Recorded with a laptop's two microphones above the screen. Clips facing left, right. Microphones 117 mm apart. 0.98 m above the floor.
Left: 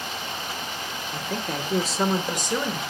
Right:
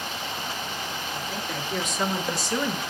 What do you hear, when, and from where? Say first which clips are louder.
1.1 s a woman speaking: left 5 dB; 60° left (ahead or behind), 2 m; by 2.8 s 10° left (ahead or behind), 3.5 m